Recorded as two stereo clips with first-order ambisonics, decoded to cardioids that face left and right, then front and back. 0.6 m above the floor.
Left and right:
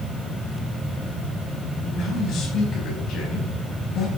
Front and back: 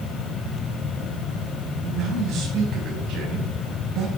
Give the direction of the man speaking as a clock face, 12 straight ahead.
7 o'clock.